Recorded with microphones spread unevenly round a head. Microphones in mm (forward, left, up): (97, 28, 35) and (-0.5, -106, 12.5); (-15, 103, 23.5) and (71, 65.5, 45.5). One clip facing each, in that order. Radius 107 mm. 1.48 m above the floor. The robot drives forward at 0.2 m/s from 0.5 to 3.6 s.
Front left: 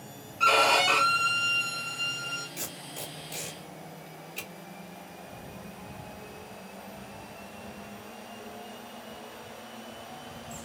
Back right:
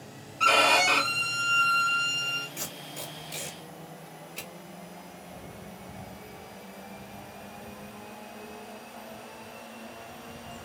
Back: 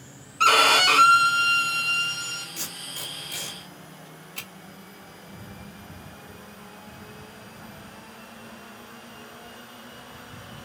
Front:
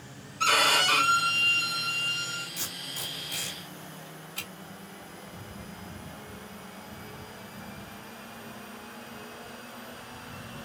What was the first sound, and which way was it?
A violin, 135° left.